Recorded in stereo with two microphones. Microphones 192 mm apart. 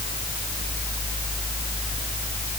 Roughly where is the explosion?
I don't hear an explosion.